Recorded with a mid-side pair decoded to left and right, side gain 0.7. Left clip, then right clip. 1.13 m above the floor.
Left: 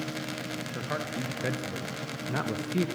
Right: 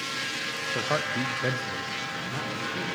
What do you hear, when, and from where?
0.8 s a man speaking: 30° right, 1.1 m; by 2.9 s 50° left, 0.9 m